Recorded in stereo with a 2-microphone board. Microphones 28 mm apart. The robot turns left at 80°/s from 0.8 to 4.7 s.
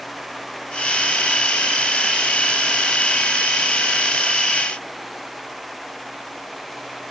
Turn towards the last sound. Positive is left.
No sound to turn to.